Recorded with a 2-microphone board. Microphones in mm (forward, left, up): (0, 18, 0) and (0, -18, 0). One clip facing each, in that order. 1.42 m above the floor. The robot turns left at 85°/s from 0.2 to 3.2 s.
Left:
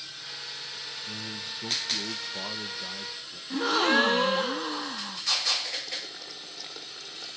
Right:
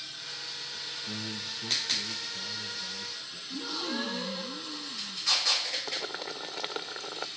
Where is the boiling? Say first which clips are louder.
Right 3 dB; 55° right (ahead or behind), 1.6 m.